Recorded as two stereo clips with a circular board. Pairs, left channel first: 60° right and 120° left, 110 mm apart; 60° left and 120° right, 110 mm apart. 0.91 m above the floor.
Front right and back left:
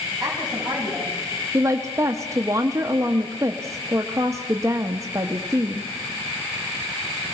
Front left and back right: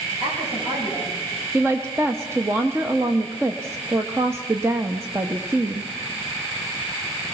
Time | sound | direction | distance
0.2 | a woman speaking | 150° right | 7 m
1.5 | a woman speaking | 175° left | 1.0 m